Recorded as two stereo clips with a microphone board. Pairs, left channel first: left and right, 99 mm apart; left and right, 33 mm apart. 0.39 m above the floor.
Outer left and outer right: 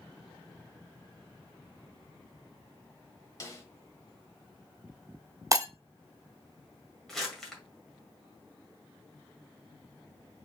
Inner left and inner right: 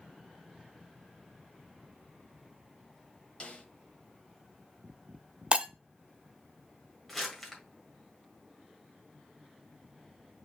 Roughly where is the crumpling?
Centre.